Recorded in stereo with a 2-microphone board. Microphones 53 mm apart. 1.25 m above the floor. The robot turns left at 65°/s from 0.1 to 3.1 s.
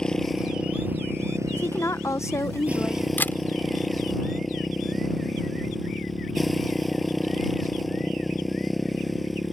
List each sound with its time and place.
0.0 s a motorcycle: 15° left; by 9.5 s straight behind
1.5 s a woman speaking: 130° left; by 3.1 s 30° left
3.2 s a camera shutter: 40° left (ahead or behind)